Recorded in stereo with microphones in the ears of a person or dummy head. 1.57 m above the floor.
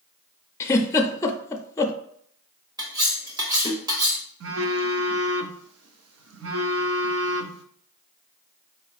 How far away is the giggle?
About 0.5 m.